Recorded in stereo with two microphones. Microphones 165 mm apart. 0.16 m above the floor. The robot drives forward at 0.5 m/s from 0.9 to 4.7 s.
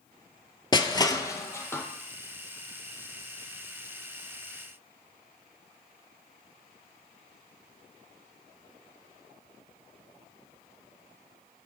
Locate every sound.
0.7 s crushing: 30° left (ahead or behind), 0.5 m; by 1.8 s 15° left (ahead or behind), 1.0 m